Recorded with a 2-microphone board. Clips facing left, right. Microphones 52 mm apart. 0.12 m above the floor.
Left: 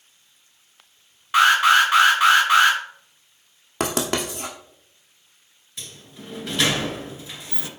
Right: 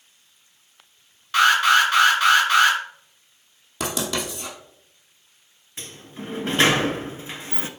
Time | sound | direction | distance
1.3 | an alarm | 20° left (ahead or behind) | 2.5 m
3.8 | writing | 50° left (ahead or behind) | 1.7 m
5.8 | a sliding door | 35° right (ahead or behind) | 0.6 m